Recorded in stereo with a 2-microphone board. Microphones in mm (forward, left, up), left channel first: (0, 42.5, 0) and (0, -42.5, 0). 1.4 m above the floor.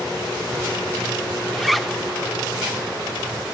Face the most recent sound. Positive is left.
turn(degrees=0)  # may be behind; listen again after turning